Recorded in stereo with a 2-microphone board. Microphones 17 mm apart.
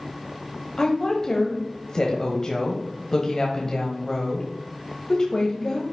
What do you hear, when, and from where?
0.8 s a woman speaking: 35° left (ahead or behind), 1.1 m